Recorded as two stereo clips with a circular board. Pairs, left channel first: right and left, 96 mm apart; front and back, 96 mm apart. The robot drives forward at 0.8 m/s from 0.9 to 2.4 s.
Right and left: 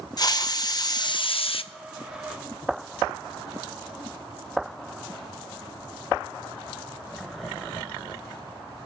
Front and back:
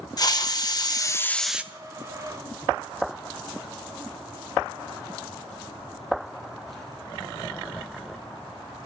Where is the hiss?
45° right, 0.7 m; by 1.6 s 105° right, 0.5 m.